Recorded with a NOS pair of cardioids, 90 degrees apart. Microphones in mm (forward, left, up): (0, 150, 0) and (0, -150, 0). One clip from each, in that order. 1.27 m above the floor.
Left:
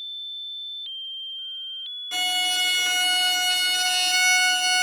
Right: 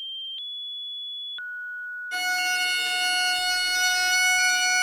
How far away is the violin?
About 0.7 m.